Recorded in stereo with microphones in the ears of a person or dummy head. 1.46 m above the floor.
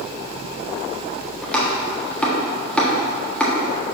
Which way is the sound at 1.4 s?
5° left (ahead or behind).